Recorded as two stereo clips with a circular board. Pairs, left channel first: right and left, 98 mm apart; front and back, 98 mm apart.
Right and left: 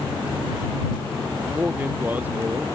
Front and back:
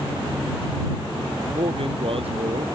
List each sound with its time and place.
1.5 s a man speaking: 160° left